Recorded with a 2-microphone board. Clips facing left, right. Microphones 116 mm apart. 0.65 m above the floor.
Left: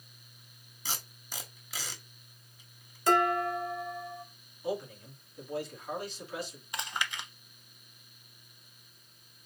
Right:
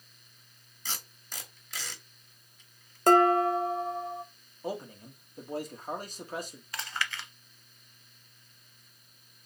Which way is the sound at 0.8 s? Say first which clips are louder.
Left 1 dB; 10° left (ahead or behind).